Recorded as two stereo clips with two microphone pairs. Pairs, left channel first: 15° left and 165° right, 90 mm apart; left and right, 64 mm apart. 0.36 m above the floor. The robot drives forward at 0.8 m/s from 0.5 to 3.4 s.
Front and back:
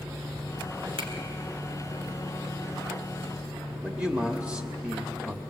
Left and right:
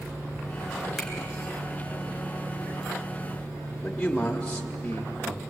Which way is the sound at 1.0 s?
Straight behind.